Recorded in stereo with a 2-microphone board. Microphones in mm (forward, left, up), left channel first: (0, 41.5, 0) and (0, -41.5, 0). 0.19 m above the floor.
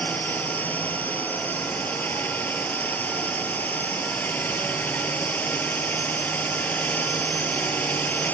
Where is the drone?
20° left (ahead or behind).